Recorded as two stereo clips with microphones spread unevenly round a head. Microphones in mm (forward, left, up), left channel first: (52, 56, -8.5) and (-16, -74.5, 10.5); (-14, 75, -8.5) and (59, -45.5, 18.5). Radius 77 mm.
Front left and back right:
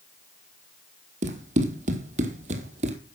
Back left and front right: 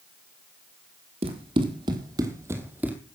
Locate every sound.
1.2 s running footsteps: 95° right, 2.5 m; by 3.0 s 130° right, 1.8 m